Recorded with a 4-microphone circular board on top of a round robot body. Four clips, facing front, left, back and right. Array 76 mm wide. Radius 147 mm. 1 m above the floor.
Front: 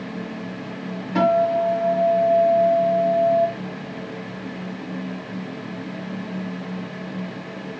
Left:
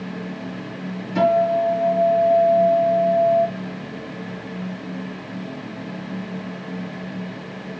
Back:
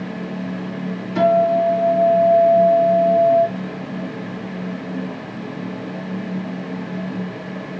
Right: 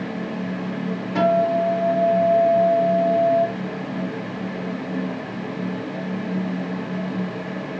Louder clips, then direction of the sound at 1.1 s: Left 1 dB, back 3 dB; 25° right.